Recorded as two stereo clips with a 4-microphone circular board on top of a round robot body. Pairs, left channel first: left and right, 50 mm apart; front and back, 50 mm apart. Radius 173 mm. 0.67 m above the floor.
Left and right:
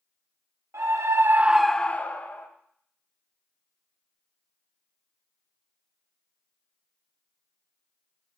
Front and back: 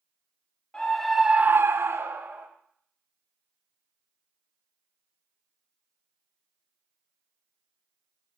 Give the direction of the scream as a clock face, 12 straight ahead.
2 o'clock.